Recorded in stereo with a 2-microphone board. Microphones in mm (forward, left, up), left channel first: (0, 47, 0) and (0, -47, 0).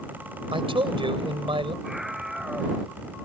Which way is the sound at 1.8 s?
5° right (ahead or behind).